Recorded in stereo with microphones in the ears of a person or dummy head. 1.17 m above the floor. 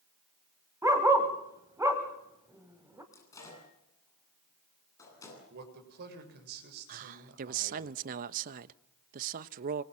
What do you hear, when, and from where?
0.8 s a dog barking: 10° right (ahead or behind), 1.4 m
3.1 s a microwave: 20° left (ahead or behind), 9.5 m
5.5 s a man speaking: 50° right (ahead or behind), 6.5 m
6.9 s a man speaking: 45° right (ahead or behind), 1.0 m